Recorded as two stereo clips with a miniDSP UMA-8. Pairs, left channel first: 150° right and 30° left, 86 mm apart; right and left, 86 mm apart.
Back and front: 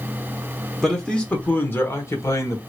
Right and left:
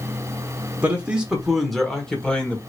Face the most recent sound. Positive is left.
turn(degrees=-155)